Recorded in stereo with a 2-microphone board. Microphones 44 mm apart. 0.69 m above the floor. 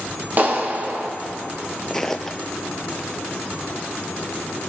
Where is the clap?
45° right (ahead or behind), 0.9 m.